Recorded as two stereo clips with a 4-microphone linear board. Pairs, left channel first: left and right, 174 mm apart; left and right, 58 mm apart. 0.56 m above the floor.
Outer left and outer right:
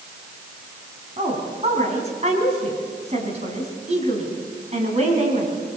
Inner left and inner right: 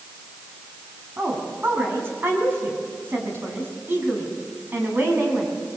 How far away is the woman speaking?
About 4.5 m.